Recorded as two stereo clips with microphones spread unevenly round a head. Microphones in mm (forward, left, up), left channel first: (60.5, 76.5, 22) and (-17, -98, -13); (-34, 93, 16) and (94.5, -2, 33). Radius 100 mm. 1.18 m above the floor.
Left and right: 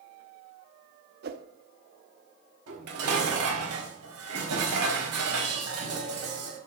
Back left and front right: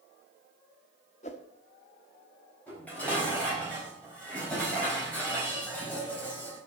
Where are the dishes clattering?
130° right, 4 m.